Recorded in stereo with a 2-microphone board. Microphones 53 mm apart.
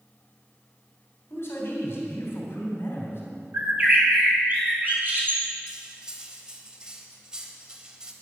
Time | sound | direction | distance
1.3 | a man speaking | 50° left (ahead or behind) | 3 m
3.5 | a bird | 35° right (ahead or behind) | 3 m
5.7 | cutlery clinking | 15° right (ahead or behind) | 1.1 m